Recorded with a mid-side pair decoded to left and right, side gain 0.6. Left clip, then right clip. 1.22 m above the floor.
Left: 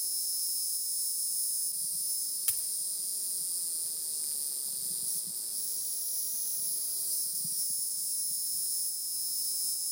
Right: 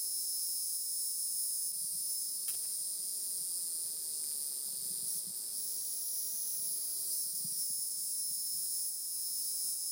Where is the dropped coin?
55° left, 1.9 m.